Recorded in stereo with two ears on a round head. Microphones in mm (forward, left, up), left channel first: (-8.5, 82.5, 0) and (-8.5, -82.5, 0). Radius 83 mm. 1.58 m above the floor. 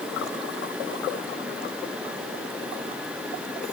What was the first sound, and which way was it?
Only background noise.